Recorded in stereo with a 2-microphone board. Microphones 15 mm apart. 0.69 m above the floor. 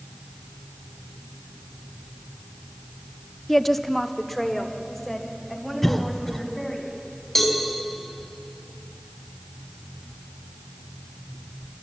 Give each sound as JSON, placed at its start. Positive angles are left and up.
{"t": 3.5, "sound": "a woman speaking", "side_deg": 10, "distance_m": 0.6}
{"t": 5.8, "sound": "a cough", "side_deg": 20, "distance_m": 1.4}
{"t": 7.3, "sound": "a cowbell", "side_deg": 15, "distance_m": 3.5}